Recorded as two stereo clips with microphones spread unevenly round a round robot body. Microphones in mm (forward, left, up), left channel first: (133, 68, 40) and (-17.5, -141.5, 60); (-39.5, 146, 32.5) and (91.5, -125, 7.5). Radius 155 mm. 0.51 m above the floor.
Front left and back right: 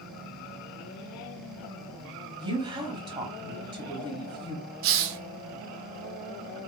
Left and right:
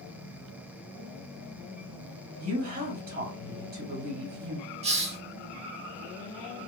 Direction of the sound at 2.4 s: 55° right.